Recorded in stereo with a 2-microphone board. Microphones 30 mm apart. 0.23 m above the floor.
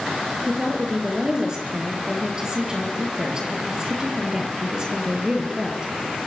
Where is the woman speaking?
25° right (ahead or behind), 5.5 m.